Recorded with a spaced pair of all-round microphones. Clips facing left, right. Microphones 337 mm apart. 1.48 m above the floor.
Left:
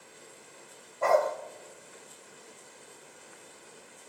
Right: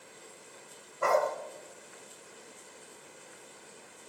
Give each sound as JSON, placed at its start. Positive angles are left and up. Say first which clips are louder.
{"t": 1.0, "sound": "a dog barking", "louder": "left 3 dB", "side_deg": -20, "distance_m": 3.0}